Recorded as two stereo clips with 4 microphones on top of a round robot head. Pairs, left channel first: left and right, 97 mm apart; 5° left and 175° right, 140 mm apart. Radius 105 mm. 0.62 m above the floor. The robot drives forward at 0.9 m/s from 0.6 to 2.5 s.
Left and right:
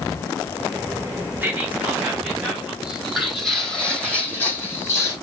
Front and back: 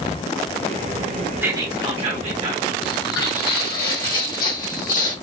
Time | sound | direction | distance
1.4 | whispering | 120° right | 0.8 m
2.8 | footsteps | 5° right | 2 m